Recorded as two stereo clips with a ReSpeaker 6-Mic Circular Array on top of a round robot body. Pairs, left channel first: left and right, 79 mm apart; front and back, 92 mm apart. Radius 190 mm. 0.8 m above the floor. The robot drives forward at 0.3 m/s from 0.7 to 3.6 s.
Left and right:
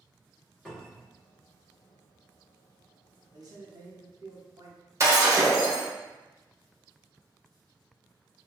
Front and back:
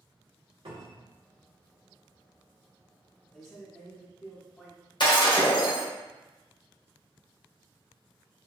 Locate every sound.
0.7 s a cupboard door: 170° left, 1.6 m; by 1.1 s 175° left, 1.8 m
3.3 s a man speaking: 80° right, 1.2 m; by 4.8 s 85° right, 1.2 m
5.0 s breaking glass: 35° right, 1.2 m